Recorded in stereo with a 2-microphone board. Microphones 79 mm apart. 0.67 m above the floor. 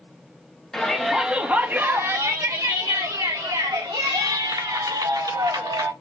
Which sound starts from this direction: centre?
A shout, at 0.7 s.